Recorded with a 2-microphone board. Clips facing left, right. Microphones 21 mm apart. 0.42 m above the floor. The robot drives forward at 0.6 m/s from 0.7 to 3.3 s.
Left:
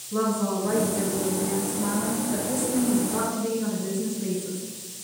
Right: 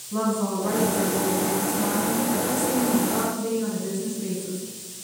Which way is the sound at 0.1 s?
30° right (ahead or behind).